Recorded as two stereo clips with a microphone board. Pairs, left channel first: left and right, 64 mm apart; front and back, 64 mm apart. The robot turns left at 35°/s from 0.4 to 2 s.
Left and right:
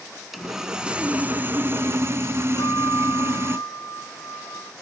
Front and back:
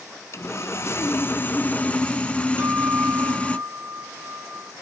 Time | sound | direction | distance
0.3 | sawing | 5° right | 0.9 m
2.6 | a guitar | 130° left | 5 m